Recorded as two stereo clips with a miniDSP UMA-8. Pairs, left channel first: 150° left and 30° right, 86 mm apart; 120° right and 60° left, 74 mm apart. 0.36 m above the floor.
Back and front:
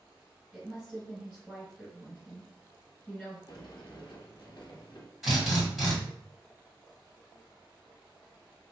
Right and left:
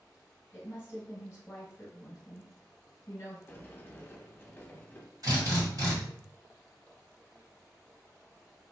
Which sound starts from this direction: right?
A woman speaking, at 0.5 s.